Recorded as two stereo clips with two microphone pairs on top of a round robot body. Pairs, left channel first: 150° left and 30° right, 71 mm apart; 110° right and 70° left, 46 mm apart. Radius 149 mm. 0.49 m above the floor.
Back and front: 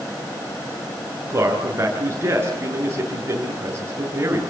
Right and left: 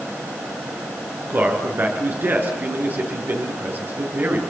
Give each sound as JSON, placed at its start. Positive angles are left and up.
{"t": 1.3, "sound": "a man speaking", "azimuth_deg": 25, "distance_m": 9.0}